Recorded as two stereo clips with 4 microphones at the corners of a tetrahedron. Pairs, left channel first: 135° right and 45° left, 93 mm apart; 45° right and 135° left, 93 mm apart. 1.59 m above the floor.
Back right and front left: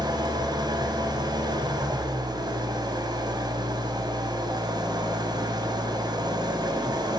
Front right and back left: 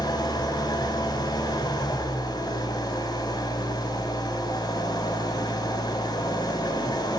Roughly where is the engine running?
Ahead.